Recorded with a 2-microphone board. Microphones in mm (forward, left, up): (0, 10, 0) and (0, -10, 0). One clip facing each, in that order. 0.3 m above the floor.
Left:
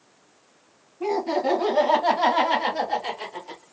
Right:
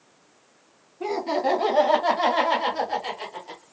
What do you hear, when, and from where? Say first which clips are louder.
1.0 s laughter: left 1 dB; 30° right (ahead or behind), 1.6 m; by 3.6 s centre (ahead or behind), 1.4 m